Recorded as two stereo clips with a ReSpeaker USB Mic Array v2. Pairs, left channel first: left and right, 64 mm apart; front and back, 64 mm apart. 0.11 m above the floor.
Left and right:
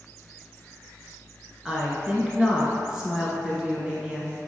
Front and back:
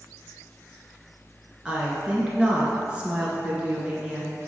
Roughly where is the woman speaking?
Behind right.